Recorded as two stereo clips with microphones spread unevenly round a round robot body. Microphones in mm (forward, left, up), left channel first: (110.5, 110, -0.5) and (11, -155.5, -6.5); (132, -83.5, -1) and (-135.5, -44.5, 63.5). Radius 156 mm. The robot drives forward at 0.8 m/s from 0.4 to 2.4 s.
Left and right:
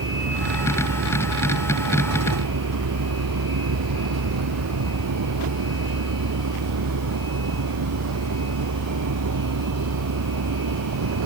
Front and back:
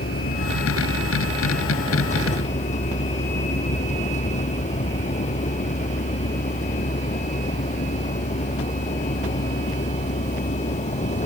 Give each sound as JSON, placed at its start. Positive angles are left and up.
{"t": 0.0, "sound": "a vehicle", "azimuth_deg": -70}